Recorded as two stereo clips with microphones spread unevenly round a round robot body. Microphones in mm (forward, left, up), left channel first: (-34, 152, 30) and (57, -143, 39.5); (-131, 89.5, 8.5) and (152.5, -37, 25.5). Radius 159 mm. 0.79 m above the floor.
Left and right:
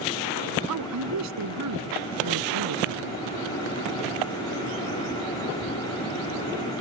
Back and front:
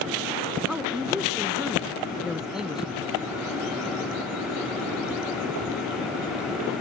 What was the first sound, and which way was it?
A man speaking, 110° right.